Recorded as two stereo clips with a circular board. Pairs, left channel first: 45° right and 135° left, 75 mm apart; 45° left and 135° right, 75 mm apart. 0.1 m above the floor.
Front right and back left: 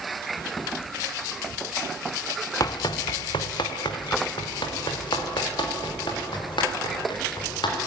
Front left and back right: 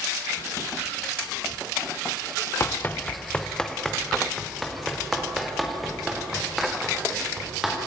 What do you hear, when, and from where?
2.6 s running footsteps: 10° right, 1.0 m; by 7.8 s 50° right, 8.5 m